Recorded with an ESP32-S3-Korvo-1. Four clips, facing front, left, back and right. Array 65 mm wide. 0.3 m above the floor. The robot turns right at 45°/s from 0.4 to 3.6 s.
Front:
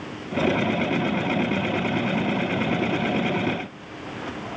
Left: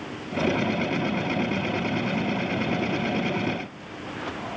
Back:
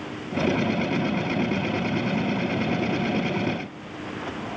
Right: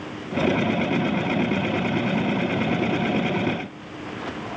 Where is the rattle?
I don't hear a rattle.